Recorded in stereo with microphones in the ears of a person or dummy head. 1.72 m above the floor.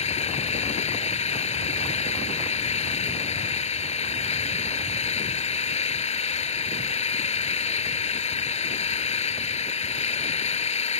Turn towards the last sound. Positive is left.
turn(degrees=30)  # may be behind; listen again after turning